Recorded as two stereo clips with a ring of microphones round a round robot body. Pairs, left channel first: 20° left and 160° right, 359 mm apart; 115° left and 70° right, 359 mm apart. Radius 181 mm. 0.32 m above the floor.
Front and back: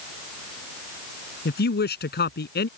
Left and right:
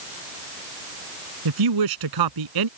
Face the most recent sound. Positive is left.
turn(degrees=-40)